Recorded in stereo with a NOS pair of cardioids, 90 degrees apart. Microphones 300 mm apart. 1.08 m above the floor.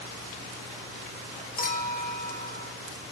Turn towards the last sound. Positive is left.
turn(degrees=30)